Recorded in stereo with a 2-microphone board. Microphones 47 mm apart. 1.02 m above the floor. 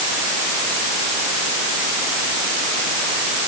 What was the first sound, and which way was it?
Only background noise.